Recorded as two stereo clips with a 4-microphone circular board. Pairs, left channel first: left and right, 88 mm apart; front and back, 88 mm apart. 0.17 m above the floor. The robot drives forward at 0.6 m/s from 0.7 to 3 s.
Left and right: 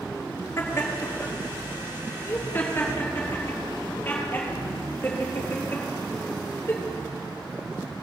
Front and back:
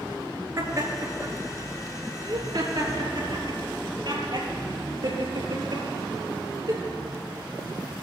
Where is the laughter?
135° left, 3 m; by 6.8 s 150° left, 4 m.